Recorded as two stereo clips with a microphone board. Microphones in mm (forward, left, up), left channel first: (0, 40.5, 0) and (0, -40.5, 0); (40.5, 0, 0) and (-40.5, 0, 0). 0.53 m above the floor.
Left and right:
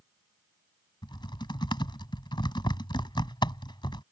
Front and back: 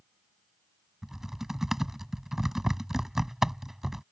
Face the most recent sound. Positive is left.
turn(degrees=95)